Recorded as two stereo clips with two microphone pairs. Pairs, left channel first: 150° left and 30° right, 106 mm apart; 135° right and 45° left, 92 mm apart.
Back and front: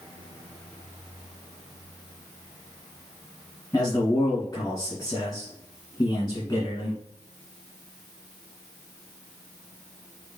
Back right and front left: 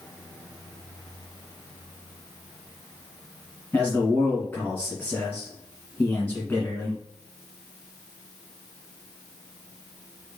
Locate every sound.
3.7 s a man speaking: 165° left, 1.6 m